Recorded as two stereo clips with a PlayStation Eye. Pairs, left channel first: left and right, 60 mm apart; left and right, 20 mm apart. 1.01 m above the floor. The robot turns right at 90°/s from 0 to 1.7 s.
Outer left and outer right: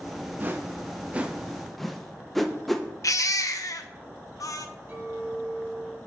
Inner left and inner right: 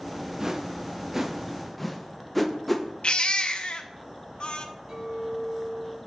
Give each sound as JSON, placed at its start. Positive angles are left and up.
{"t": 0.4, "sound": "a whoosh", "side_deg": -30, "distance_m": 0.7}
{"t": 3.0, "sound": "a baby crying", "side_deg": 65, "distance_m": 0.7}
{"t": 4.9, "sound": "a clink", "side_deg": -30, "distance_m": 4.0}